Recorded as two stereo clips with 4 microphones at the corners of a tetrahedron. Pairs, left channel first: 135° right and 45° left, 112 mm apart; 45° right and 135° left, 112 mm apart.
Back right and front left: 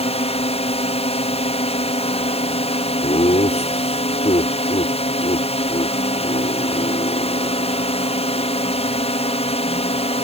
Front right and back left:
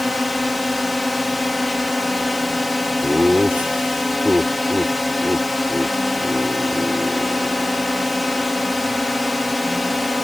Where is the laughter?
150° right.